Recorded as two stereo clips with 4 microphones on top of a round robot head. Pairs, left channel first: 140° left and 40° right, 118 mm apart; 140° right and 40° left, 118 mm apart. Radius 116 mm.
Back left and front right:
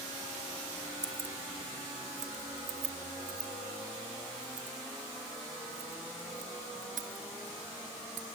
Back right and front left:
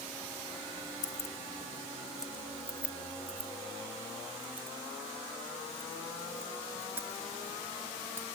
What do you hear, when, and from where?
1.0 s keys jangling: 90° right; by 8.3 s 30° right